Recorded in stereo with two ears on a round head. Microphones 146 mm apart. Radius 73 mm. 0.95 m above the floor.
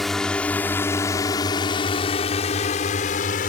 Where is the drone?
Centre (ahead or behind); by 3.5 s 50° left (ahead or behind).